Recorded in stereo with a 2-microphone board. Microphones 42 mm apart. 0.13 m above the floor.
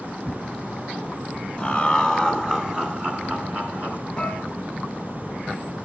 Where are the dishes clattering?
15° left (ahead or behind), 1.8 m.